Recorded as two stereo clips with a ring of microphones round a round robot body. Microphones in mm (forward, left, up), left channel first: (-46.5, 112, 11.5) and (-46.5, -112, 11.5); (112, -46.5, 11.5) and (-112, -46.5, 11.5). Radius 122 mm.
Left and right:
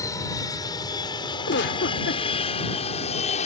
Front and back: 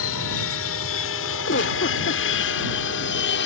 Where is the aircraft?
15° left; by 3.5 s 30° left.